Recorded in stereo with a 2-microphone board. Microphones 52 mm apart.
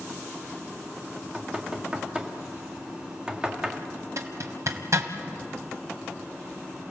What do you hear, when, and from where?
1.2 s knocking: 20° right (ahead or behind), 1.8 m
4.2 s a zipper: 65° right (ahead or behind), 1.7 m